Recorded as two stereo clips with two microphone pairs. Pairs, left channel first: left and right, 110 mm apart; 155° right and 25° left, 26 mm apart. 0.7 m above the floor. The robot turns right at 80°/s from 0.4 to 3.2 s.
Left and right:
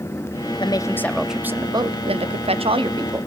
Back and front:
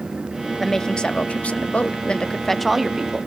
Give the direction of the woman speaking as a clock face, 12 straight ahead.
8 o'clock.